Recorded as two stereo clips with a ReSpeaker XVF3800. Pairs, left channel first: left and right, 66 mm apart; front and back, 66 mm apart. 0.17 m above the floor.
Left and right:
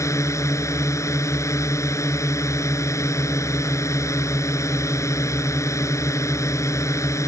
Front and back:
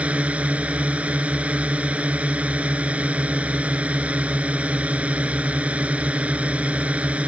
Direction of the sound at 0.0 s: 115° left.